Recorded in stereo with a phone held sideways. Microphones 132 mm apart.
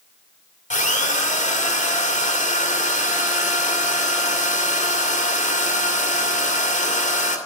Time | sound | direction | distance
0.7 | a drill | 65° left (ahead or behind) | 2.0 m